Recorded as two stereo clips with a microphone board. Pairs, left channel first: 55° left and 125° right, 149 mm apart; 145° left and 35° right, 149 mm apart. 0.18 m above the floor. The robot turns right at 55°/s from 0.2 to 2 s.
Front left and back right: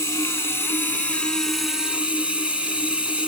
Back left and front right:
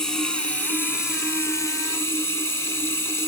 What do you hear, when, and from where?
0.0 s running water: 70° left, 1.0 m; by 3.3 s 165° left, 1.0 m